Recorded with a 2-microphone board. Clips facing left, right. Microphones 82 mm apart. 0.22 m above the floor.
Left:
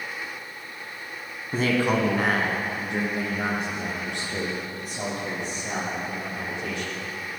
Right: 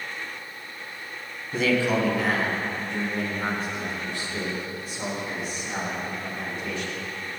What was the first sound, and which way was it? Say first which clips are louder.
A man speaking: even; 40° left (ahead or behind).